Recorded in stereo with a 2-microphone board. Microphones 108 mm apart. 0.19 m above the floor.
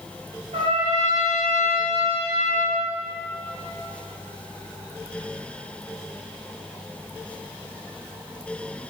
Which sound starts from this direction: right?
A trumpet, at 0.5 s.